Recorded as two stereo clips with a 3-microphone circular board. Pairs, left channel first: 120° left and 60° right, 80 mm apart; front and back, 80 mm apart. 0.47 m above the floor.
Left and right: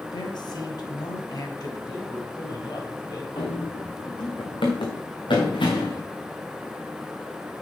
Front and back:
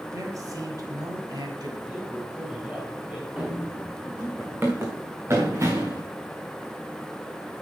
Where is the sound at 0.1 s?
135° left, 2.5 m; by 1.8 s 155° left, 3 m.